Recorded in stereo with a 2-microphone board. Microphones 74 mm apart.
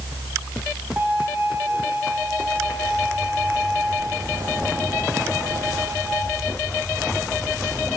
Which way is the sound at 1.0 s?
25° right (ahead or behind).